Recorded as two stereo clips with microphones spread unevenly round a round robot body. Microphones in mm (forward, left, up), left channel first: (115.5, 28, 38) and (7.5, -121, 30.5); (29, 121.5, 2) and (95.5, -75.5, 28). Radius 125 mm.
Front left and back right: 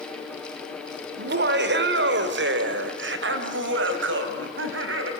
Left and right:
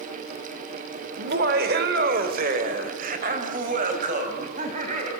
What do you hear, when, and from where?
1.2 s laughter: 120° right, 2 m; by 5.1 s 135° right, 4 m